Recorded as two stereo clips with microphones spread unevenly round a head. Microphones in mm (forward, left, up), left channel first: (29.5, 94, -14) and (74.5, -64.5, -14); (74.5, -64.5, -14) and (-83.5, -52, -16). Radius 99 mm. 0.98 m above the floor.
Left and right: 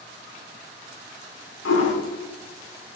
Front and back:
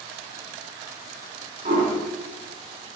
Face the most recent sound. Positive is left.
turn(degrees=120)